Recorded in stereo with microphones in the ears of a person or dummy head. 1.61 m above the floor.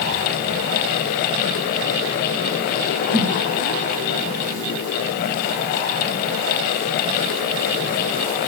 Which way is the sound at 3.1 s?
60° right (ahead or behind).